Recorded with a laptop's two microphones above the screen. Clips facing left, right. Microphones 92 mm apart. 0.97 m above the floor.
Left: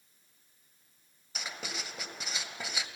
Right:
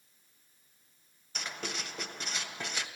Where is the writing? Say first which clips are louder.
Right 2 dB; 5° left (ahead or behind), 1.9 m.